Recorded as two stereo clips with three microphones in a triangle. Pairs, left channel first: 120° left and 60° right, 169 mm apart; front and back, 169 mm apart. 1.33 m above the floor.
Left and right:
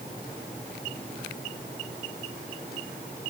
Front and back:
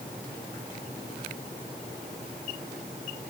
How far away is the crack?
I don't hear a crack.